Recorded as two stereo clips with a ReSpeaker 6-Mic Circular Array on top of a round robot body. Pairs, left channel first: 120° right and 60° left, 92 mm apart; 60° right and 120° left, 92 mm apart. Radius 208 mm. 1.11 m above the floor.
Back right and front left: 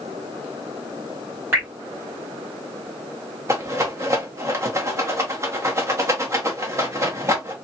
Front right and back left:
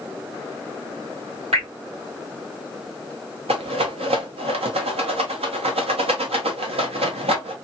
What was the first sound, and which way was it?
Dripping, 125° left.